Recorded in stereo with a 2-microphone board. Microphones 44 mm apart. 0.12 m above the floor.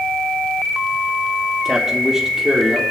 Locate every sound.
1.6 s a man speaking: 10° right (ahead or behind), 3 m